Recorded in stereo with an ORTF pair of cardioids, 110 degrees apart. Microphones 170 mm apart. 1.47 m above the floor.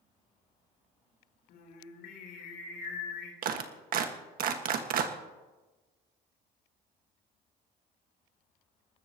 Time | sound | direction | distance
1.5 | singing | 65° left | 3.5 m
3.4 | a clap | 60° right | 1.7 m